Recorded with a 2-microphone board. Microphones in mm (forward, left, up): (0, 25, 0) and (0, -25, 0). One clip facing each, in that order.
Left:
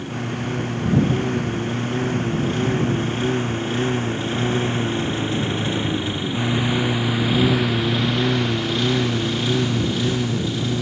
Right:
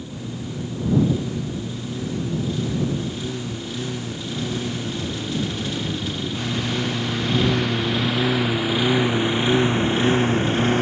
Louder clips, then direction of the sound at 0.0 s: Left 5 dB; 55° left (ahead or behind).